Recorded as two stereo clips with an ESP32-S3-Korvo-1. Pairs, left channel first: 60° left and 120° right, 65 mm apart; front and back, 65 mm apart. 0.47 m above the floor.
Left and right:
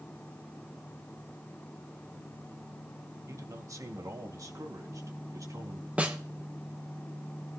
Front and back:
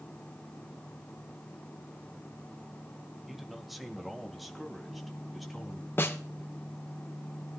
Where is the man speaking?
95° right, 1.4 m; by 5.9 s 90° right, 3.5 m.